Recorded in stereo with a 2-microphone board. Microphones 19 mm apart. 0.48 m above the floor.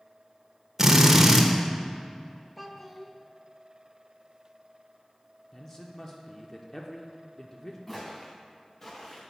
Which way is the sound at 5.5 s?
20° left (ahead or behind).